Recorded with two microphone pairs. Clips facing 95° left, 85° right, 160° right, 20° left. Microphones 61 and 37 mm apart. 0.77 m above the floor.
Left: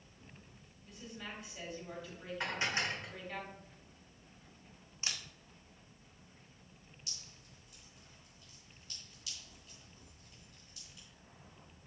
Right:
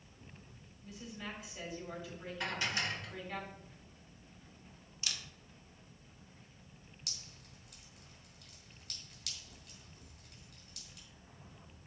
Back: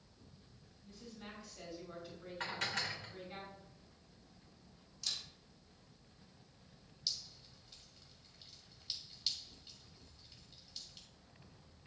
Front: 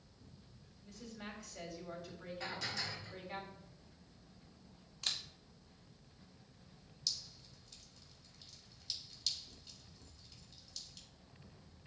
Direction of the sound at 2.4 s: 160° left.